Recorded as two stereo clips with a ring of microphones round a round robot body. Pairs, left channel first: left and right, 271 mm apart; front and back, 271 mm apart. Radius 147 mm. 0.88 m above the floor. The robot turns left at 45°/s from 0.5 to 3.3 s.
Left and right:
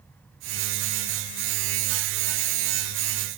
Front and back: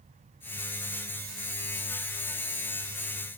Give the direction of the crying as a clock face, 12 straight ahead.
I don't hear crying.